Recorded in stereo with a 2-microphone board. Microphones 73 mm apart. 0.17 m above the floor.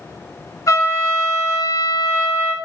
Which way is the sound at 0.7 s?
45° left (ahead or behind).